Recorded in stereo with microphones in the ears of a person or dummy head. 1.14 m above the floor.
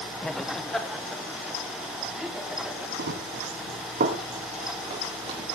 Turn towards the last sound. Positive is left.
turn(degrees=-35)  # may be behind; listen again after turning